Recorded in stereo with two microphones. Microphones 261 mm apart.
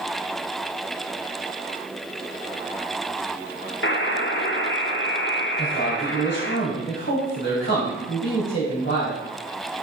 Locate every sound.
3.8 s a buzzer: 45° left (ahead or behind), 0.7 m
5.6 s a man speaking: 45° left (ahead or behind), 3.5 m